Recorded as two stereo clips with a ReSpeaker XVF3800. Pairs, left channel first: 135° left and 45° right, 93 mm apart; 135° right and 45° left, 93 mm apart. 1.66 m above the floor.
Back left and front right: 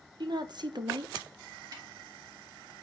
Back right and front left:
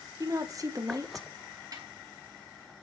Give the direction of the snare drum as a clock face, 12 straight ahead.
12 o'clock.